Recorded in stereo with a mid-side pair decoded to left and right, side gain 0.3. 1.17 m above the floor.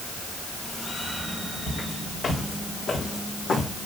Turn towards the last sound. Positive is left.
turn(degrees=80)